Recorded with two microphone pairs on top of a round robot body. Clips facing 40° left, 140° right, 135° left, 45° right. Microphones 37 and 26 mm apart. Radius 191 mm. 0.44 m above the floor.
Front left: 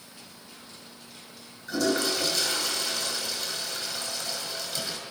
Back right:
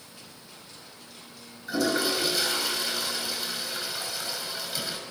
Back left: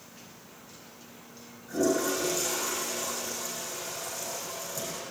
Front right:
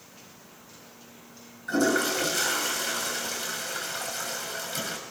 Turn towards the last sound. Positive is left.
turn(degrees=-60)